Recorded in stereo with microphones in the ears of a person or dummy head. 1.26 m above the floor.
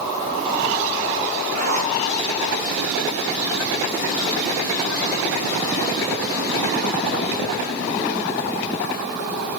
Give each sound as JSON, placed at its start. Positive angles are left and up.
{"t": 1.5, "sound": "a zipper", "side_deg": -55, "distance_m": 4.0}